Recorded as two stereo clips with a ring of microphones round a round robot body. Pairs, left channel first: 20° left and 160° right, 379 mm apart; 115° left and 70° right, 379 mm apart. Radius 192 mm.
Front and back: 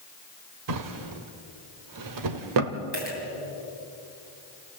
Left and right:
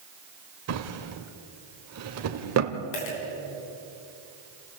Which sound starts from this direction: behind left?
A dropped coin, at 2.9 s.